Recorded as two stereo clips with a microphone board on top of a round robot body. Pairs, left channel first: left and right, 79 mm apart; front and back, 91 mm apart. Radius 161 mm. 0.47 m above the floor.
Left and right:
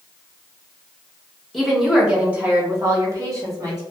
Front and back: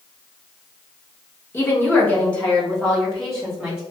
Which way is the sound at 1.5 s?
10° left.